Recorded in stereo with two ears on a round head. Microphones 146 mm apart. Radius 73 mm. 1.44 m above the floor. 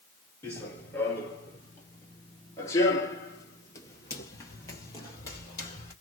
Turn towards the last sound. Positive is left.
turn(degrees=20)  # may be behind; listen again after turning